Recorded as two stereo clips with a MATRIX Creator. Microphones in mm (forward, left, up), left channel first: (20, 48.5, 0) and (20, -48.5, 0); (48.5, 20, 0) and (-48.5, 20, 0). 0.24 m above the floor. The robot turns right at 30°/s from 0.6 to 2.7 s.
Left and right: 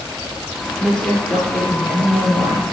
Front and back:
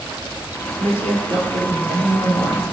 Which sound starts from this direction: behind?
A woman speaking, at 0.8 s.